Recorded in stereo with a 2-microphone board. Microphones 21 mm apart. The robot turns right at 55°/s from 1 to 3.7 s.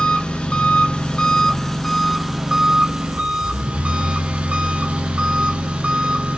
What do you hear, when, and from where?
0.0 s an engine running: 115° left, 0.9 m; by 6.4 s 95° right, 0.9 m